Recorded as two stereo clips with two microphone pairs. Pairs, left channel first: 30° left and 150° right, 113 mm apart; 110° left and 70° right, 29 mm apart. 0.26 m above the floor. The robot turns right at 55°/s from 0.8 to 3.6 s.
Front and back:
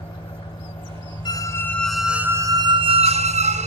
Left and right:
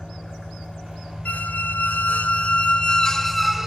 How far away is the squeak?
About 0.6 m.